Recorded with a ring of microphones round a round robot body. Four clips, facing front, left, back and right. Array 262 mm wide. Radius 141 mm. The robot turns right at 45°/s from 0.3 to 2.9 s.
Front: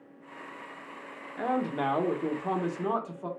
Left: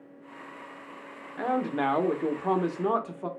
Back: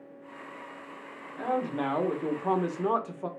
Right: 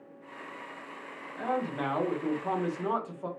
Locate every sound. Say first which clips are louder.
1.4 s a man speaking: left 4 dB, even; 60° left, 0.8 m; by 3.3 s 130° left, 0.8 m